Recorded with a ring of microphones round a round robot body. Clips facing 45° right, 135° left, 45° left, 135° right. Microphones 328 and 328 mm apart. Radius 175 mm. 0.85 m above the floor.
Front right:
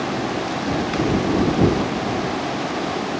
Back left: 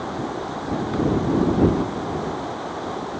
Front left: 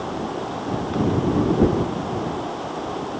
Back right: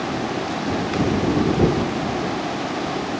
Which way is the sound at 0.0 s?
90° right.